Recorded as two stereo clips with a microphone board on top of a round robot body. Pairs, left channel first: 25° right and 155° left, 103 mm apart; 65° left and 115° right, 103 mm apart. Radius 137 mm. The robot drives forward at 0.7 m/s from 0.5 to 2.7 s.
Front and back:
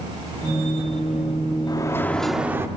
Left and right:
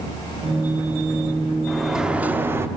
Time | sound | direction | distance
1.7 | a sliding door | 20° right | 0.8 m